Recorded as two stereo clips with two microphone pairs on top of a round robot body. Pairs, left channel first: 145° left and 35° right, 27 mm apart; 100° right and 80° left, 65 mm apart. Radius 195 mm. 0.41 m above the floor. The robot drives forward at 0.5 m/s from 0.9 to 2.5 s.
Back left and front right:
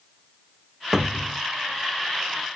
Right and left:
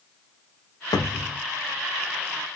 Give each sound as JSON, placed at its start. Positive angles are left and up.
{"t": 0.9, "sound": "a cupboard door", "azimuth_deg": -110, "distance_m": 0.5}